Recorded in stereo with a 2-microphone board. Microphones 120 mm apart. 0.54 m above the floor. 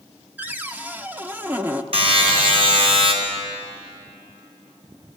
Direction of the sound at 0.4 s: 15° right (ahead or behind).